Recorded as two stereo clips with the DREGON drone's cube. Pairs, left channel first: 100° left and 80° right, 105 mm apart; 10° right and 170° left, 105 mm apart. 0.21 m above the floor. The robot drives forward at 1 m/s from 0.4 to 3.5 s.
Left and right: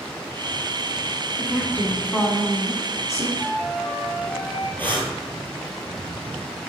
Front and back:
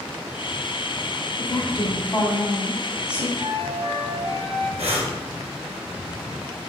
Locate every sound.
1.4 s a woman speaking: 20° left, 2 m; by 3.3 s 110° left, 1.3 m
3.4 s a flute: 170° right, 3 m
4.8 s breathing: 170° left, 1.3 m